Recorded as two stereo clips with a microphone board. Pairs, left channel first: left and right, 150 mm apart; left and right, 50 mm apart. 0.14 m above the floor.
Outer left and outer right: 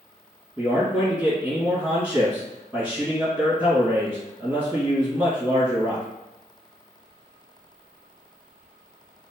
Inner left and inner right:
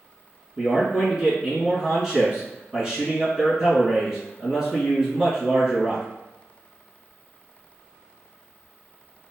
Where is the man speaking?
10° right (ahead or behind), 1.9 m.